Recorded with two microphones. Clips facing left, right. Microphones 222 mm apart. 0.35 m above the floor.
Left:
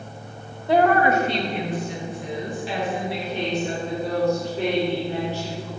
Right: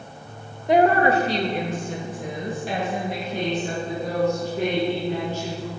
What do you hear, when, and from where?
0.7 s a woman speaking: 15° right (ahead or behind), 0.9 m; by 5.7 s 45° right (ahead or behind), 4 m